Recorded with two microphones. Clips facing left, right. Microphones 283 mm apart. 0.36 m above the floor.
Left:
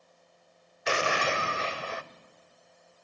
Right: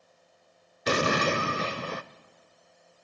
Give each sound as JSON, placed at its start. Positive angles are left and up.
{"t": 0.9, "sound": "an explosion", "side_deg": -45, "distance_m": 0.6}